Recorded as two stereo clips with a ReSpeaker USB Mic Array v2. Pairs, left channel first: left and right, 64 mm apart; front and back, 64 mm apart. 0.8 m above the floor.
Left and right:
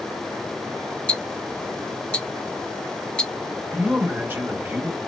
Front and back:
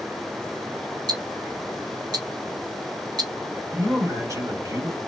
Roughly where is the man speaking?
Behind right.